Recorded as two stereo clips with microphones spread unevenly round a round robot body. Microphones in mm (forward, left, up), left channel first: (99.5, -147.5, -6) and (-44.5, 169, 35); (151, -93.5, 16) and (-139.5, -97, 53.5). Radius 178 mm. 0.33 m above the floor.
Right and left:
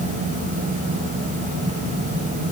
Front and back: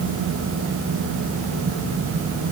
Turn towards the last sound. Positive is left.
No sound to turn to.